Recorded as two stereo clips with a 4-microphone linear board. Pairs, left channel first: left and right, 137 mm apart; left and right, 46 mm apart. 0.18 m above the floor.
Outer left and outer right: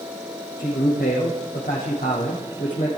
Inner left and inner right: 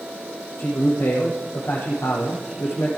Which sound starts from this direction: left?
A man speaking, at 0.6 s.